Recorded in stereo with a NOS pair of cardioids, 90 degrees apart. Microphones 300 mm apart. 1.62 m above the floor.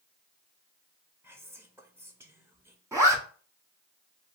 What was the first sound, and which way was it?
Whispering, 10° right.